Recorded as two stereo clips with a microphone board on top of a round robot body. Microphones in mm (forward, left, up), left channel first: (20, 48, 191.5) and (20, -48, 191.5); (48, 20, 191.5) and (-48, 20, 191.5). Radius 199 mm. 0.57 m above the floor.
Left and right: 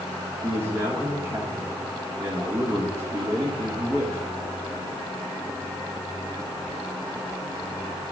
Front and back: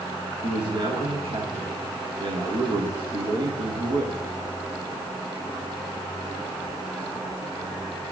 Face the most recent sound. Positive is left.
turn(degrees=-155)